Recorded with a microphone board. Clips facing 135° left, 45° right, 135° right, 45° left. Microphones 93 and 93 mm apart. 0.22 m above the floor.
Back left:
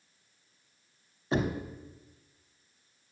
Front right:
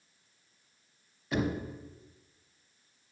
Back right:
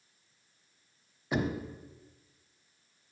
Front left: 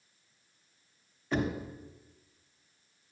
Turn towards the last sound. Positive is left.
turn(degrees=160)